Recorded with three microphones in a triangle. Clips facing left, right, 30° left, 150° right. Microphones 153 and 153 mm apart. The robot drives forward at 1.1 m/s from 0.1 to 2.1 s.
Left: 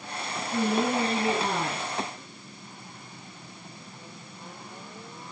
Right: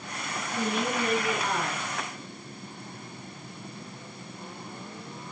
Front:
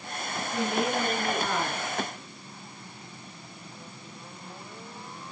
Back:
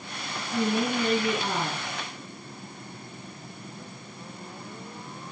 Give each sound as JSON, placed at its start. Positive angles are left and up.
{"t": 0.5, "sound": "a woman speaking", "azimuth_deg": 140, "distance_m": 2.5}